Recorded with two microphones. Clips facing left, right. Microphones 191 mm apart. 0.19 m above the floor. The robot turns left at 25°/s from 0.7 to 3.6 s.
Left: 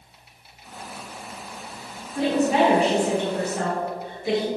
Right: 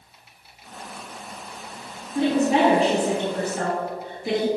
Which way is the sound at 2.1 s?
30° right.